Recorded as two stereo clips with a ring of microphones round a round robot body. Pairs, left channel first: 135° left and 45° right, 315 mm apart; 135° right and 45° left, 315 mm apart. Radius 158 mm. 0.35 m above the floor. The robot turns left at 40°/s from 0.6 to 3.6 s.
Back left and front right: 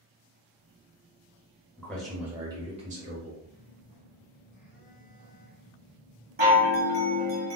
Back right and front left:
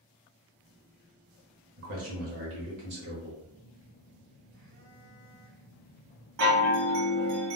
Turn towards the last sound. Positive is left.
turn(degrees=15)